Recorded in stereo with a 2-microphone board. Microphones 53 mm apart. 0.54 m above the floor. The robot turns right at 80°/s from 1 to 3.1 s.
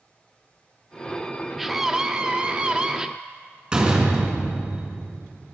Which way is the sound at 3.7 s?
20° right (ahead or behind).